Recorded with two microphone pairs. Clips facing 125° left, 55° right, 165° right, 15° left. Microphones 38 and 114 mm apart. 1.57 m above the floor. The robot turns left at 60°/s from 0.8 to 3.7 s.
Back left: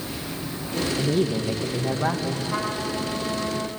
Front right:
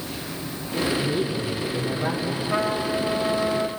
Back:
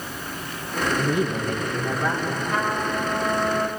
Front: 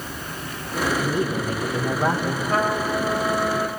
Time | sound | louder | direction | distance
1.0 | a woman speaking | back left 2 dB, even | 125° left | 1.8 m
2.5 | a trumpet | front right 3 dB, front 4 dB | 5° right | 3.5 m